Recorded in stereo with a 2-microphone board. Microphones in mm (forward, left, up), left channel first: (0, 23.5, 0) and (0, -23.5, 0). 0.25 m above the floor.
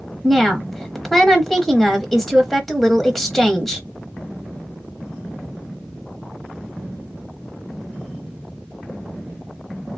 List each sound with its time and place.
0.2 s a woman speaking: 5° left (ahead or behind), 1.0 m